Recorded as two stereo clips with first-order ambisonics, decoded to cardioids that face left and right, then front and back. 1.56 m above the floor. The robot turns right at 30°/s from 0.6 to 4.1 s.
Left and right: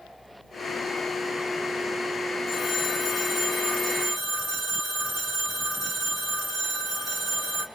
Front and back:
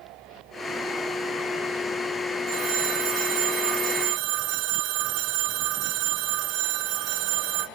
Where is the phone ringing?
160° left, 3 m; by 7.7 s 155° right, 3 m.